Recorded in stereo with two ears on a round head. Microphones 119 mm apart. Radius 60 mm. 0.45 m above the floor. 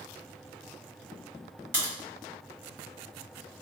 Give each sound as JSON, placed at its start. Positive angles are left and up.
{"t": 1.7, "sound": "a crack", "side_deg": -15, "distance_m": 1.6}